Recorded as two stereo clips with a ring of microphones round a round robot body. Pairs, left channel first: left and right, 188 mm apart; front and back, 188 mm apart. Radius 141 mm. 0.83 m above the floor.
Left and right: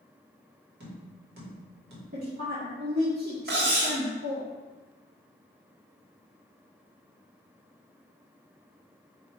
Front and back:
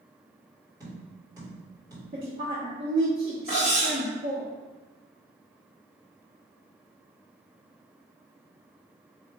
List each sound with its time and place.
0.8 s tapping: 105° right, 1.6 m
2.1 s a woman speaking: 120° right, 0.9 m
3.5 s cutlery clinking: 65° right, 1.0 m